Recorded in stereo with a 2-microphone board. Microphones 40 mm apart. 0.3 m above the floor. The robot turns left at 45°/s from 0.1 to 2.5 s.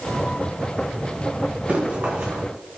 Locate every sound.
1.7 s running footsteps: 35° right (ahead or behind), 2 m; by 2.4 s 65° right (ahead or behind), 2 m